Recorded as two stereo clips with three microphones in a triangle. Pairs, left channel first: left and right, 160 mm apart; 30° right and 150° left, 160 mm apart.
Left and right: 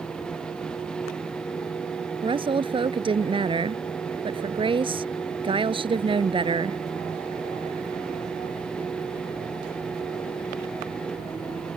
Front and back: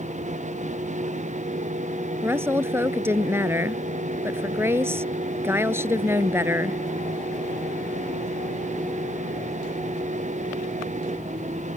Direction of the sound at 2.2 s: 140° right.